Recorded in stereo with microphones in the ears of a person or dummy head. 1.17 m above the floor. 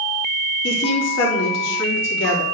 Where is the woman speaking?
80° left, 3.5 m.